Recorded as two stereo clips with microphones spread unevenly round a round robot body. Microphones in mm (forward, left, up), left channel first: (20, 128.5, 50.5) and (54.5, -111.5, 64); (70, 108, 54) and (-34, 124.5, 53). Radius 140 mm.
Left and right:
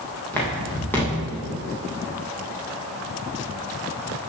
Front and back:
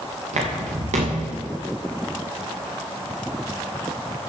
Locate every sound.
0.3 s footsteps: straight behind, 3.5 m